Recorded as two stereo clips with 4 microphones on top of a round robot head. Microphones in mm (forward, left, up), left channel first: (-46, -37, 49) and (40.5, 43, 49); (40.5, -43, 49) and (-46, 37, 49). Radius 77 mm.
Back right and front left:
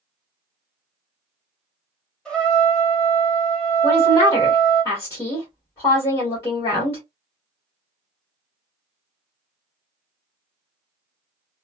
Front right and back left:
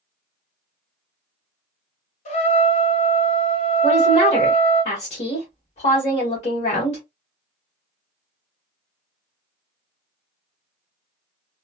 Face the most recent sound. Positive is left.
turn(degrees=-70)